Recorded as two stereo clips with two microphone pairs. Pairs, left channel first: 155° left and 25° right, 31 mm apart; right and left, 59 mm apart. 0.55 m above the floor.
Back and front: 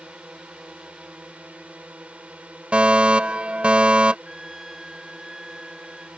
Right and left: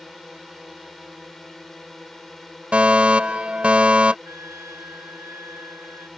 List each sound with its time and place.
0.0 s a drone: 10° right
2.7 s a fire alarm: 25° left
4.2 s a trumpet: 55° left